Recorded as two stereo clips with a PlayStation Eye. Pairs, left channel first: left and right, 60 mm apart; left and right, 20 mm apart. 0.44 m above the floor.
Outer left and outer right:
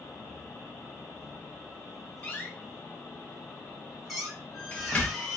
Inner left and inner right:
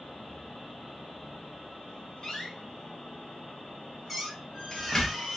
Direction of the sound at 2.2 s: 25° left (ahead or behind).